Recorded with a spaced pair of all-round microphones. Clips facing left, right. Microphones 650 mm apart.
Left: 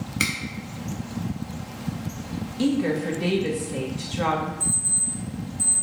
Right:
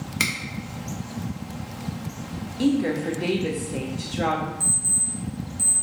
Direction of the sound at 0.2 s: 30° right (ahead or behind).